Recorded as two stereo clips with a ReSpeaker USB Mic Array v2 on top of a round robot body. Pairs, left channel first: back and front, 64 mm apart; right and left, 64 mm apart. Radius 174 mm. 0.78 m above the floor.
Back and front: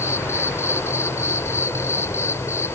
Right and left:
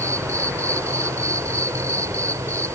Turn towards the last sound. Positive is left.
turn(degrees=130)